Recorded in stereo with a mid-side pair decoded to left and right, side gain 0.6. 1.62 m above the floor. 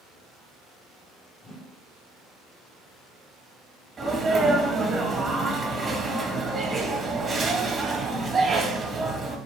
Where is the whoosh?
30° left, 0.8 m.